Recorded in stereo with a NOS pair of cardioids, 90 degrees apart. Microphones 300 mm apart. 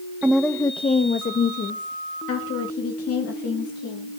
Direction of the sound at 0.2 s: 5° right.